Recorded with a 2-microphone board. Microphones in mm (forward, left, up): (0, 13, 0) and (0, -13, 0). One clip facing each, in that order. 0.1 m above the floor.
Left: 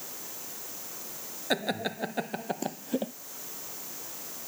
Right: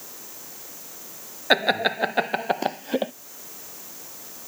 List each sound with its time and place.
1.5 s laughter: 40° right (ahead or behind)